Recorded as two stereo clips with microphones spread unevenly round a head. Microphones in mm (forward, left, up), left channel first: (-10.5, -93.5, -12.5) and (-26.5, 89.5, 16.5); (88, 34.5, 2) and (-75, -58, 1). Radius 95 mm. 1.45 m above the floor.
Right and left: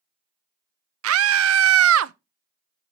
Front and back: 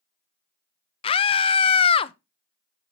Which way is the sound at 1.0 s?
90° left.